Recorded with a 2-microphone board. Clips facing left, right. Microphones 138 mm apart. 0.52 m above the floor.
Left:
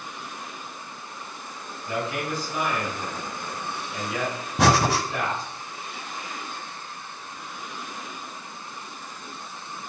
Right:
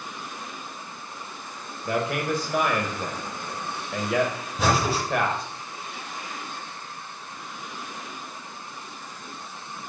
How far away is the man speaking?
About 1.9 m.